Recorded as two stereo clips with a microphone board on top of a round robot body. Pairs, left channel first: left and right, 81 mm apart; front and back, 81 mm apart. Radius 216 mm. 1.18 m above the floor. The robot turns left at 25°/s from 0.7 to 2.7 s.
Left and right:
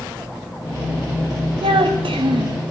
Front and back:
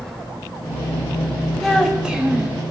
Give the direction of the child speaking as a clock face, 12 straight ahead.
3 o'clock.